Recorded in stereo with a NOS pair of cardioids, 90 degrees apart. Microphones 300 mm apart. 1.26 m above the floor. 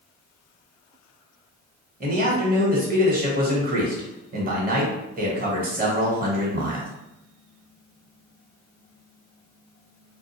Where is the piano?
No piano in this recording.